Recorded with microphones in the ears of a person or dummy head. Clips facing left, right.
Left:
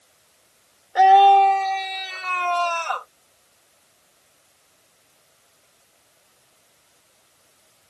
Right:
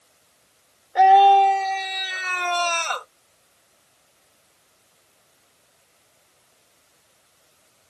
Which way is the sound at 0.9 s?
Centre (ahead or behind).